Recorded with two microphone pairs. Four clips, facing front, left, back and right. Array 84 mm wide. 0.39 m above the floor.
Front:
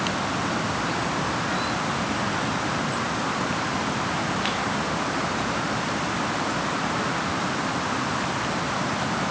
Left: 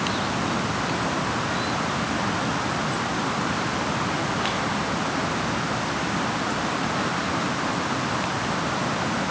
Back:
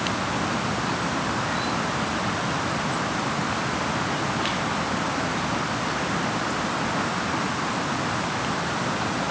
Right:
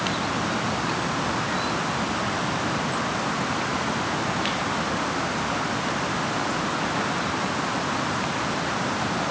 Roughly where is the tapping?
I don't hear tapping.